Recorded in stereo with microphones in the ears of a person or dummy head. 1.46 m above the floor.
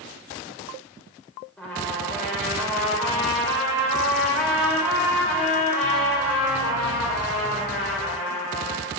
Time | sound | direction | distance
1.6 | a trumpet | 5° left (ahead or behind) | 2.5 m